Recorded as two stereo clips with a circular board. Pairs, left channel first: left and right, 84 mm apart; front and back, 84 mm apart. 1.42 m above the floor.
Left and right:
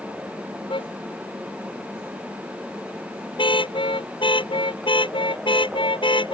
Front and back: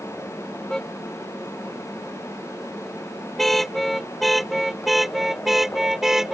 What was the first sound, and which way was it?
A car horn, 85° left.